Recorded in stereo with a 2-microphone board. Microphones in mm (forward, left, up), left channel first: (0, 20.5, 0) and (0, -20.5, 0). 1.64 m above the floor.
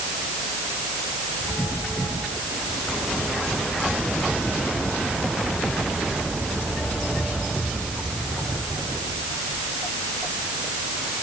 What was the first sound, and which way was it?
Only background noise.